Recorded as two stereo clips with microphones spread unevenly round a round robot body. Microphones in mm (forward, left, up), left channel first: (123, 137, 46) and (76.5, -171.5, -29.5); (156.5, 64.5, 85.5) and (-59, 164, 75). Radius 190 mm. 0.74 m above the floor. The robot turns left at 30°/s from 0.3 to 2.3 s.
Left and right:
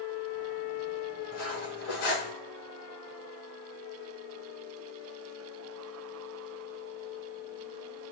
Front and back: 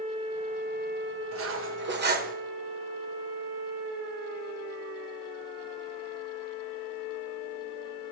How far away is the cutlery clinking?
About 1.7 m.